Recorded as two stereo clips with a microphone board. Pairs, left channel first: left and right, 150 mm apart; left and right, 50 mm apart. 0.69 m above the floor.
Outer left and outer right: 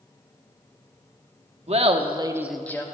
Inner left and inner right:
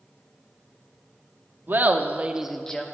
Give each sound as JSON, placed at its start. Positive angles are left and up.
{"t": 1.7, "sound": "laughter", "side_deg": -45, "distance_m": 1.0}